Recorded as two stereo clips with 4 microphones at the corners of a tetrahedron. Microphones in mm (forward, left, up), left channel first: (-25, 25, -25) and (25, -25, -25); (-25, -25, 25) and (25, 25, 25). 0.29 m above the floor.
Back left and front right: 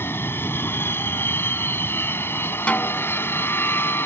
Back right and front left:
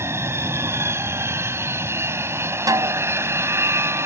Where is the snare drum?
65° left.